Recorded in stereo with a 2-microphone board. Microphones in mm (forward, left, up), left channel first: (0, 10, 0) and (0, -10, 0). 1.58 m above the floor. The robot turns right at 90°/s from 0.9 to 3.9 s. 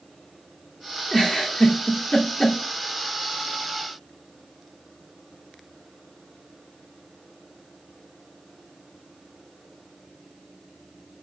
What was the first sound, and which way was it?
A giggle, 20° left (ahead or behind).